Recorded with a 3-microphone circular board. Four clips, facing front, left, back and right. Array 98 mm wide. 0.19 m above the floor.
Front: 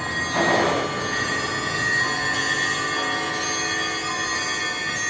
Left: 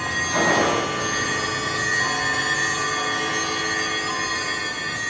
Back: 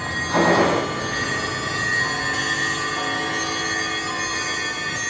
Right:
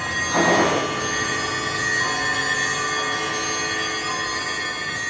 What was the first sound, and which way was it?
A gunshot, 155° right.